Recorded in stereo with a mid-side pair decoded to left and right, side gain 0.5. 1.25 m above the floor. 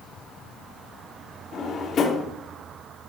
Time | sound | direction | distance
1.5 | a drawer | 50° left | 1.5 m